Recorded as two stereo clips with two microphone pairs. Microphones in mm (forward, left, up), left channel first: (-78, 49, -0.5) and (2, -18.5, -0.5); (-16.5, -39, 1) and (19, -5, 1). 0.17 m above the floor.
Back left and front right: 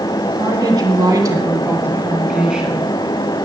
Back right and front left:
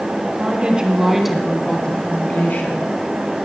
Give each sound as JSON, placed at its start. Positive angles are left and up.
{"t": 0.2, "sound": "a woman speaking", "azimuth_deg": -5, "distance_m": 2.5}